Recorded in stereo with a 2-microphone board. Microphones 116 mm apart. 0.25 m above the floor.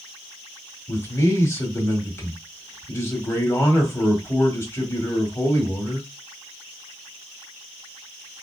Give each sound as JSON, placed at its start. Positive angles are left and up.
{"t": 0.9, "sound": "a man speaking", "side_deg": 25, "distance_m": 1.4}